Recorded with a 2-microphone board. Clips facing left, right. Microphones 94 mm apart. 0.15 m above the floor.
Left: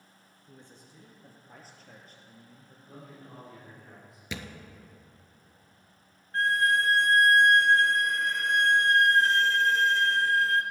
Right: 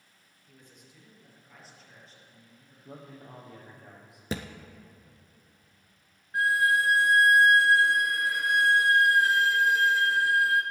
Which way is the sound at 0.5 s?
30° left (ahead or behind).